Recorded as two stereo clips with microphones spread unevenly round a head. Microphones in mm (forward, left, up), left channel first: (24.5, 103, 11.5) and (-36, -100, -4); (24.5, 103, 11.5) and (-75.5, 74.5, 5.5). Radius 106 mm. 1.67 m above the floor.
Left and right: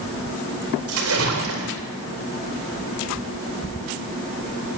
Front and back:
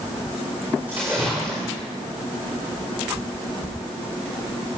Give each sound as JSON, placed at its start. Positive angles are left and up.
{"t": 0.9, "sound": "a splash", "azimuth_deg": -80, "distance_m": 4.0}